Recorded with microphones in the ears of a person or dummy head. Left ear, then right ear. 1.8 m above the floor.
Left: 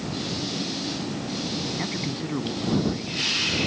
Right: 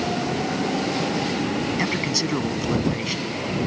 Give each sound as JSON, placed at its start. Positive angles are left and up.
{"t": 1.8, "sound": "a man speaking", "side_deg": -85}